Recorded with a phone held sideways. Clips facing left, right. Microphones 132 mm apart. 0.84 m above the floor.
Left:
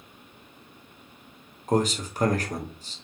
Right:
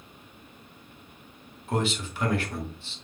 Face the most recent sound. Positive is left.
turn(degrees=40)  # may be behind; listen again after turning